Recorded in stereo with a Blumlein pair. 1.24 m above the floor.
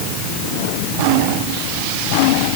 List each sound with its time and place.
Only background noise.